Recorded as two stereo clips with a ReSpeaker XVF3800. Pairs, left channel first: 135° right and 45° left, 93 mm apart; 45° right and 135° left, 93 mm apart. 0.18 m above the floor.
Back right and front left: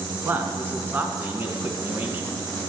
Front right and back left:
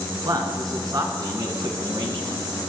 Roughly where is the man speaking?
Left.